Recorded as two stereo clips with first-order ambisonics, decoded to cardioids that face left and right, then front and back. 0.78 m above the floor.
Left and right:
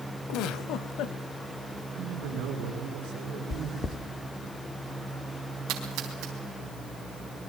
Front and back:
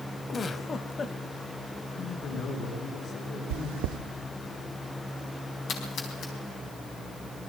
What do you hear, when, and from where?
0.3 s a giggle: 65° left, 0.9 m
1.9 s a man speaking: 55° right, 8.5 m
3.5 s chewing: 160° left, 0.7 m
5.7 s a splash: 55° right, 4.5 m